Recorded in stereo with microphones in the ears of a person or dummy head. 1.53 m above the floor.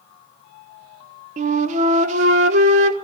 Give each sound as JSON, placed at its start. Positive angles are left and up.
{"t": 1.4, "sound": "a flute", "side_deg": -45, "distance_m": 1.3}